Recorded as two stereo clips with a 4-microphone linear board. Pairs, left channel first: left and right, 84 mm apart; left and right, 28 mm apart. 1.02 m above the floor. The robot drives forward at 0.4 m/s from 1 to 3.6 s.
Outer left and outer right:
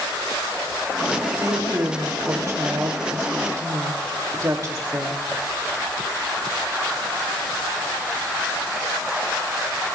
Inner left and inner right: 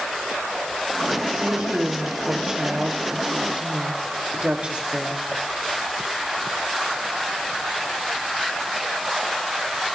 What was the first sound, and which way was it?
A woman speaking, 35° right (ahead or behind).